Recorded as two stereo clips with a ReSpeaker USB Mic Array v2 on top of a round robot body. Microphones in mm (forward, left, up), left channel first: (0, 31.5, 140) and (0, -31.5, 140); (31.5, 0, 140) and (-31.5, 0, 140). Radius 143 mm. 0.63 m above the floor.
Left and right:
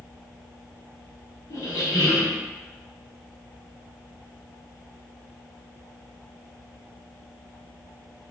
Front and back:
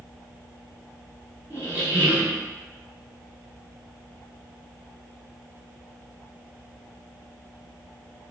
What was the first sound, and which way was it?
A squeak, 120° left.